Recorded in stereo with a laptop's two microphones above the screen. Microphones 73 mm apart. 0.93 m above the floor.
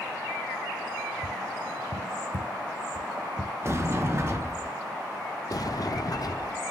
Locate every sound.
1.2 s tapping: 85° right, 2 m
3.6 s a sliding door: 35° right (ahead or behind), 1.7 m
5.5 s a sliding door: 55° left (ahead or behind), 0.7 m